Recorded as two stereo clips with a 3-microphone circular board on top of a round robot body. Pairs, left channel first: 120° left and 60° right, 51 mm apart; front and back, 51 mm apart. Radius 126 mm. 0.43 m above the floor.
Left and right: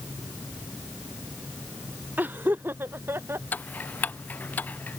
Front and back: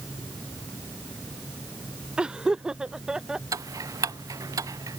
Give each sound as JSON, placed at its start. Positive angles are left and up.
{"t": 2.2, "sound": "laughter", "azimuth_deg": -110}
{"t": 3.5, "sound": "ticking", "azimuth_deg": 180}